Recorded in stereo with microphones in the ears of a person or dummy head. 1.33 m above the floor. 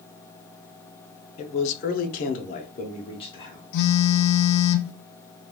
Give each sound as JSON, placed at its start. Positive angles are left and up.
{"t": 1.4, "sound": "a man speaking", "side_deg": 30, "distance_m": 0.6}
{"t": 3.7, "sound": "a phone buzzing", "side_deg": 70, "distance_m": 0.5}